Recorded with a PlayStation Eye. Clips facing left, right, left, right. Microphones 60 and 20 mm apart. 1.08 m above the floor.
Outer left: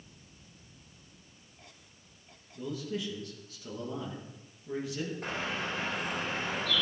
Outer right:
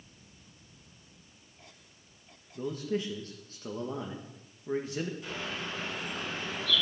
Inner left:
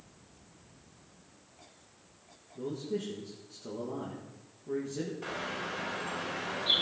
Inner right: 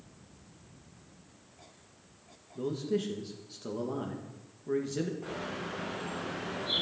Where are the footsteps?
I don't hear footsteps.